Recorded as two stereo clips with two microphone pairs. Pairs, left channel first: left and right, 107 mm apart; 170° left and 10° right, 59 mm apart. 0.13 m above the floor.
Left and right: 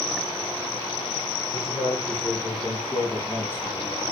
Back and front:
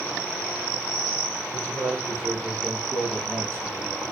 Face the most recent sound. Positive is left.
turn(degrees=20)